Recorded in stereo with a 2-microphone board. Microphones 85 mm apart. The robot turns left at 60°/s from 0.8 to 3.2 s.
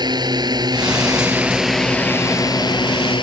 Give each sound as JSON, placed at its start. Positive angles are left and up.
{"t": 0.0, "sound": "a drone", "side_deg": -55}